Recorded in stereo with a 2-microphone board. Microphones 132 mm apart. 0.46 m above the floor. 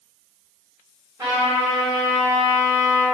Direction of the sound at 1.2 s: 25° right (ahead or behind).